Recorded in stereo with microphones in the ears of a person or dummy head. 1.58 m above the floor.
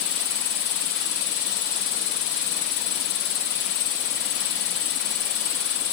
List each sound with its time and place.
0.0 s an insect: 65° left (ahead or behind)